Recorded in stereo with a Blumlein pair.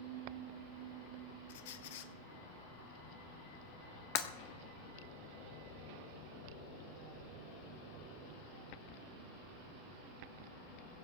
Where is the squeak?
55° left, 1.0 m.